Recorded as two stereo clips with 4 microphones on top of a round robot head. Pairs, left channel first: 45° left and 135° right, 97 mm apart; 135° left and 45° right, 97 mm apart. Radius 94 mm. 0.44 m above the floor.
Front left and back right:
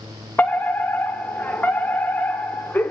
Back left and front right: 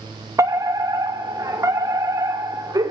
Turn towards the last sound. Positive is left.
turn(degrees=-15)